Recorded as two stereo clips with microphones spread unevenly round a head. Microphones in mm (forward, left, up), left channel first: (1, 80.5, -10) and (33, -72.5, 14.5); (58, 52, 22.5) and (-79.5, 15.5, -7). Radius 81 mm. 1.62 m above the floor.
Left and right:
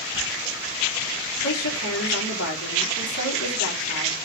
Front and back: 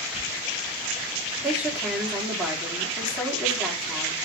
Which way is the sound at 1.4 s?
110° left.